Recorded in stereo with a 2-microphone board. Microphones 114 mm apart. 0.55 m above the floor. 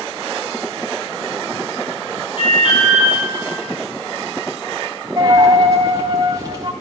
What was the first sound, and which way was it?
An alarm, 60° left (ahead or behind).